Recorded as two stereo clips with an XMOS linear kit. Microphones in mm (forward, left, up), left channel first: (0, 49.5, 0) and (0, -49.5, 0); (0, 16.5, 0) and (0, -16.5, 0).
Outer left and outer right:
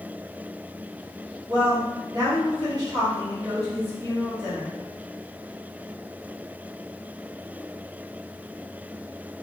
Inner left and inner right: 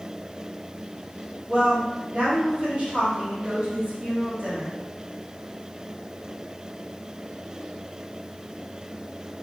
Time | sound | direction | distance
1.5 | a woman speaking | 35° right (ahead or behind) | 1.4 m